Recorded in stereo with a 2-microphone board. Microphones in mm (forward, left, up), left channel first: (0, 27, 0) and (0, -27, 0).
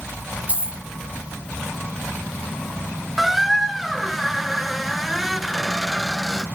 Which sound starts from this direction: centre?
A squeak, at 3.2 s.